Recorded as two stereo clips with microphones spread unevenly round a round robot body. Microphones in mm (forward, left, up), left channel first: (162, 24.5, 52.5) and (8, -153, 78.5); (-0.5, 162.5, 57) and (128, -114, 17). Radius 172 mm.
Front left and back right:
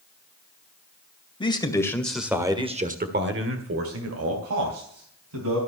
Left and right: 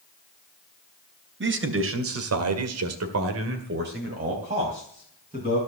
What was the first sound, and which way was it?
A man speaking, 15° right.